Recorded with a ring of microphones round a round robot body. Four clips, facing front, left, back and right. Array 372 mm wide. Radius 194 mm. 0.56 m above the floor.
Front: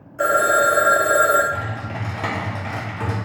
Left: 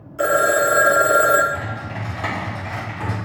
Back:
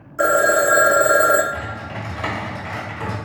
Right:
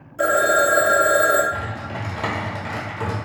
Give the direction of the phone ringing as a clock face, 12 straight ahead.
7 o'clock.